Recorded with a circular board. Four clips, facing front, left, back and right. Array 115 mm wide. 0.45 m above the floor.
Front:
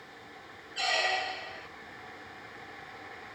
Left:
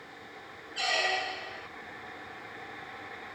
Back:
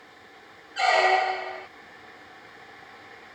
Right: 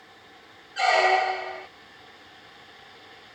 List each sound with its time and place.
0.8 s a squeak: 135° right